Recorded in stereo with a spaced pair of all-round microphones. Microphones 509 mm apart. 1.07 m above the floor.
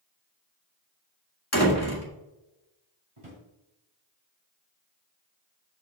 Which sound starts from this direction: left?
A door slam, at 1.5 s.